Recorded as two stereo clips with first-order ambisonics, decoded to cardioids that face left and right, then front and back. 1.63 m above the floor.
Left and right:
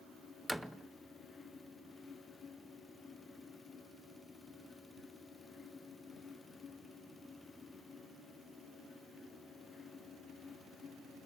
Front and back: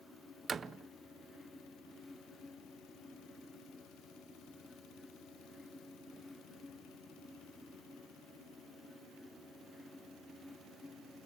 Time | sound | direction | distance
0.5 | a door slam | 175° right | 0.6 m